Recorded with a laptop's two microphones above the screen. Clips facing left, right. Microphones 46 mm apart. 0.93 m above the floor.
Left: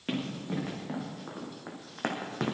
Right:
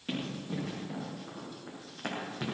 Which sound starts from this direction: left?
Running footsteps, at 0.1 s.